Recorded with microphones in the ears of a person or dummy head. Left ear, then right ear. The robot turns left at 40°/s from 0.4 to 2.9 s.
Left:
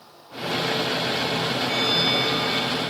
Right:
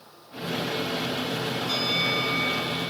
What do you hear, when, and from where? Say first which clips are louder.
1.7 s a bell: left 3 dB; 90° right, 5 m; by 2.8 s 135° right, 5 m